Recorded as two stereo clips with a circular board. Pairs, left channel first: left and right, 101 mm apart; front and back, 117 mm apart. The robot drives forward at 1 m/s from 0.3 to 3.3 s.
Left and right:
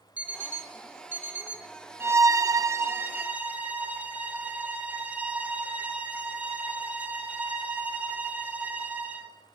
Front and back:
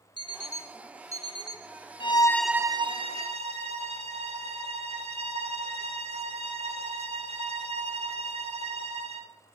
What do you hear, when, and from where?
0.2 s an alarm clock: 20° right, 0.8 m; by 1.7 s 170° right, 1.0 m
2.0 s a violin: 30° right, 0.6 m; by 9.3 s 165° right, 0.9 m